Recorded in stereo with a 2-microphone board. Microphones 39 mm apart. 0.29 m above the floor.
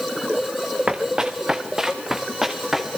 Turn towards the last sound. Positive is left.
turn(degrees=-5)  # may be behind; listen again after turning